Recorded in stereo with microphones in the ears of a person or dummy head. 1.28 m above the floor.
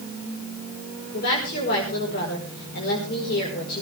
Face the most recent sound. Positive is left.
turn(degrees=55)  # may be behind; listen again after turning